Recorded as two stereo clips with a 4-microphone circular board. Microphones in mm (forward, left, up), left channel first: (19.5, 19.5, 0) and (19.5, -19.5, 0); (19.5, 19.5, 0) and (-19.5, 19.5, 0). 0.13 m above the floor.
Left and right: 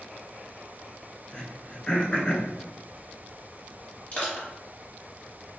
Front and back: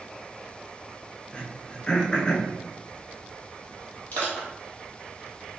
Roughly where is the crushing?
Ahead left.